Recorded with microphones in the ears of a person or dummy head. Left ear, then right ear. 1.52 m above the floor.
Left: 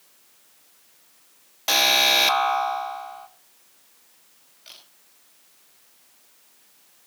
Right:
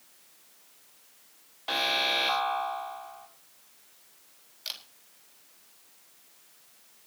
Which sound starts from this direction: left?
An alarm, at 1.7 s.